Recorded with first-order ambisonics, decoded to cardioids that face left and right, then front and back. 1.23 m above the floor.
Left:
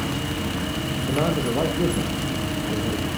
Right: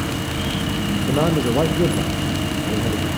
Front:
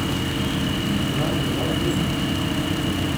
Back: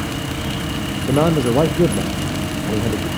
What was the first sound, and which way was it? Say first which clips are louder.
A man speaking: right 4 dB, back 7 dB; 160° right.